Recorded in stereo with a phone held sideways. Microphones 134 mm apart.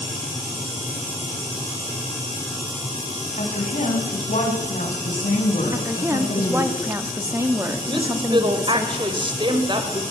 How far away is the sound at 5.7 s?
About 3 m.